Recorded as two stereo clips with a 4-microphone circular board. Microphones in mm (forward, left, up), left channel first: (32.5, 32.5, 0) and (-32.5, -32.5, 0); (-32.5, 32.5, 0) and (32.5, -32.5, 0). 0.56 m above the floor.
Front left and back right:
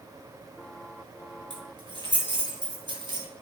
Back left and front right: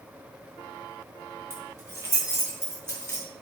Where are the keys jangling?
105° right, 5.5 m.